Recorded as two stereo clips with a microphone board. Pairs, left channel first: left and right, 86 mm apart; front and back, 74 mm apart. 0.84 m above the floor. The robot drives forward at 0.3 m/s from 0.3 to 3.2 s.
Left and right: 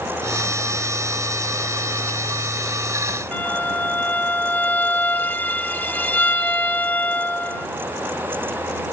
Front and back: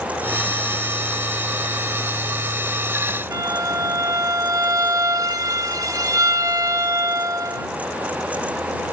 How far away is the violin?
About 0.7 m.